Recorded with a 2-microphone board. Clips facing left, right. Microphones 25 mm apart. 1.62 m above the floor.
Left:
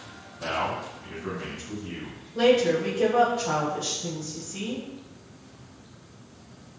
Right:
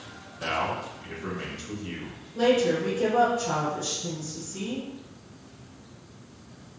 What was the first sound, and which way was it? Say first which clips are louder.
A man speaking: even; 25° right (ahead or behind).